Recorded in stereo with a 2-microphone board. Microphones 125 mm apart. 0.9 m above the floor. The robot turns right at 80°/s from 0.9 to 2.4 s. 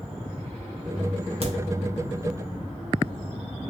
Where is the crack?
55° right (ahead or behind), 0.7 m; by 1.5 s 45° right (ahead or behind), 0.7 m.